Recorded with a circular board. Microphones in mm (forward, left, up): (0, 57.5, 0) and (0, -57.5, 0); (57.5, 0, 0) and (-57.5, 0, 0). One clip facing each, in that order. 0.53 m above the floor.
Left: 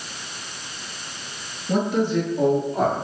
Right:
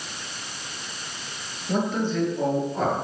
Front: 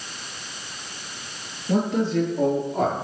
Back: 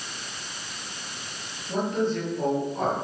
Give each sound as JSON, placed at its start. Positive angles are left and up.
{"t": 1.7, "sound": "a man speaking", "azimuth_deg": 5, "distance_m": 7.0}